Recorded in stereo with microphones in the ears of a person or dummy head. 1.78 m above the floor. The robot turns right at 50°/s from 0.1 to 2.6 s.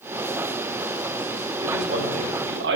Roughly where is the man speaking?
Right.